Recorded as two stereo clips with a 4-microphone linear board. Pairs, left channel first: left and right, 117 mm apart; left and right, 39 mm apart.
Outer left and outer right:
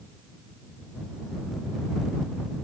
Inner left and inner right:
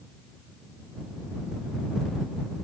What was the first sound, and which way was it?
Only background noise.